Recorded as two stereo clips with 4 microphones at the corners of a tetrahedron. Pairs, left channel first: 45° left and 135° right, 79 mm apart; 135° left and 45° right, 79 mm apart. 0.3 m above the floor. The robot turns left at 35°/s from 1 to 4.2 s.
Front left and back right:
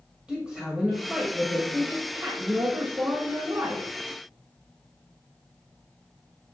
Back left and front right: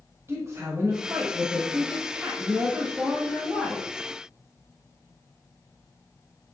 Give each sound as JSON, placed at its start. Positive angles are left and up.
{"t": 0.3, "sound": "a woman speaking", "azimuth_deg": -60, "distance_m": 1.5}